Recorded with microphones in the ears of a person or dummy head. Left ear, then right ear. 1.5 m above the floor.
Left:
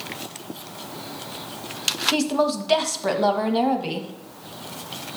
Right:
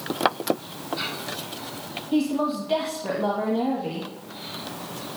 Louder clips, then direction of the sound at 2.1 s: Left 3 dB; 65° left (ahead or behind).